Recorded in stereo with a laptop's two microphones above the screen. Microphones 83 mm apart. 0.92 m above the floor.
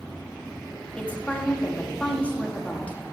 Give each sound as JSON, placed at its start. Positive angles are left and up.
{"t": 1.0, "sound": "a woman speaking", "side_deg": 15, "distance_m": 1.3}